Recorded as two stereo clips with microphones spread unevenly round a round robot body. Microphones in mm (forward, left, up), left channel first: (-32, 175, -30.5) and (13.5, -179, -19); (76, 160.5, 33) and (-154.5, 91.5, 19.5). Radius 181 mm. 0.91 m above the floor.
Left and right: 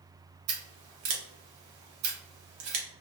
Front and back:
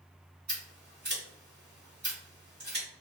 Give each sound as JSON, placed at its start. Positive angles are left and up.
{"t": 0.5, "sound": "scissors", "azimuth_deg": -95, "distance_m": 0.8}